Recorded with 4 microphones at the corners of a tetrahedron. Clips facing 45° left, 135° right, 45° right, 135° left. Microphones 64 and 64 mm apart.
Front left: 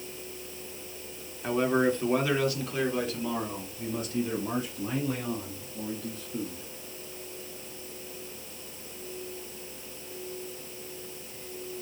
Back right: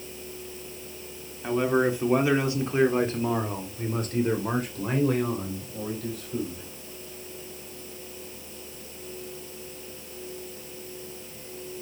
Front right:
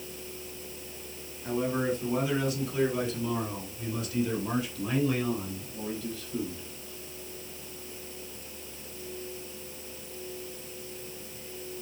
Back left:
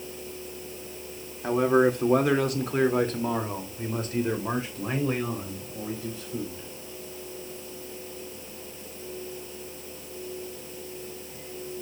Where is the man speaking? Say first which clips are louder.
Back right 2 dB, back left 8 dB; 135° left, 2 m; by 6.7 s 155° right, 4.5 m.